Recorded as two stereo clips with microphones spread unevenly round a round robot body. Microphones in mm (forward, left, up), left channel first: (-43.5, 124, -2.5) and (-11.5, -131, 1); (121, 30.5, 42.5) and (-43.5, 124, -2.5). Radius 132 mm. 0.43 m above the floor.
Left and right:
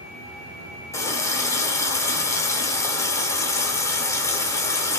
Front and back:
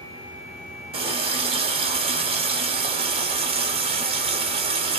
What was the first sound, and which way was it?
A running tap, 170° left.